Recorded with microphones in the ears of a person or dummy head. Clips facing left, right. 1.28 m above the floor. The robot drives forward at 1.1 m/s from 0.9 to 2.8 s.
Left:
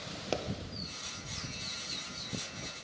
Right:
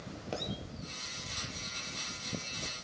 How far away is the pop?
About 0.5 m.